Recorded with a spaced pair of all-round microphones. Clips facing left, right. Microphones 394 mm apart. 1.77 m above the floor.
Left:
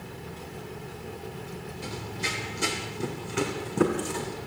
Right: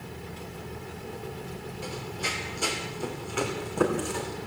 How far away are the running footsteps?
About 3 m.